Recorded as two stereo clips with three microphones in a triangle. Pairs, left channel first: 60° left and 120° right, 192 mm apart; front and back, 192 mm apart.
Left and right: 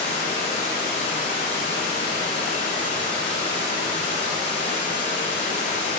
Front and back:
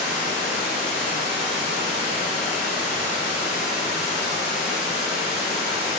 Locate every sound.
0.0 s running water: 15° right, 1.8 m